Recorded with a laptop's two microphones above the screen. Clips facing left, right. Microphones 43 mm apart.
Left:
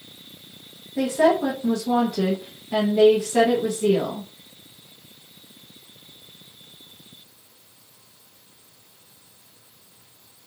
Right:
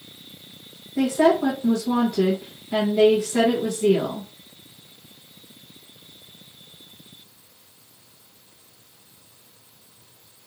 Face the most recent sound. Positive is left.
turn(degrees=10)  # may be behind; listen again after turning